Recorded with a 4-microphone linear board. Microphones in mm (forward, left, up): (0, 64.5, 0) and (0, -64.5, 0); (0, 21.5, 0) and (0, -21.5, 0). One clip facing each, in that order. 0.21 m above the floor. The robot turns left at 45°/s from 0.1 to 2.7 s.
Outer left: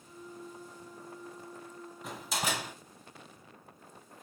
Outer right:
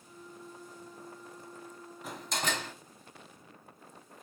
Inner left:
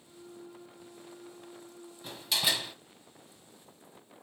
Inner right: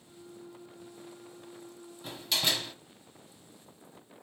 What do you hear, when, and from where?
2.0 s a door slam: centre (ahead or behind), 0.9 m; by 2.7 s 10° left (ahead or behind), 0.9 m